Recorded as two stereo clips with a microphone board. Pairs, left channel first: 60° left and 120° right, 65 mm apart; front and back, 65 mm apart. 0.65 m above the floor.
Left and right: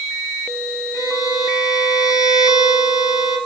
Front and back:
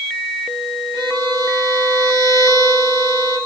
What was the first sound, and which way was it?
A violin, 40° left.